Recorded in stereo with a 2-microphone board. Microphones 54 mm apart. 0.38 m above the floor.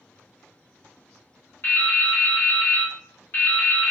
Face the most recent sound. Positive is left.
turn(degrees=40)  # may be behind; listen again after turning